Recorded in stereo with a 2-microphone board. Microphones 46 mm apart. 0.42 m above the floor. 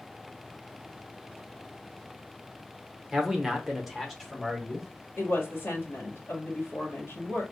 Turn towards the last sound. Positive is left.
turn(degrees=55)  # may be behind; listen again after turning